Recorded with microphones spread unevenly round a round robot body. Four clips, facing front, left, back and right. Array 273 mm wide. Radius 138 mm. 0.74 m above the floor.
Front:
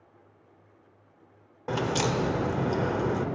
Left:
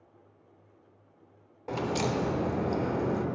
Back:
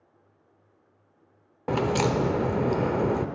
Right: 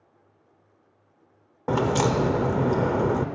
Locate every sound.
1.7 s a crack: 120° right, 0.6 m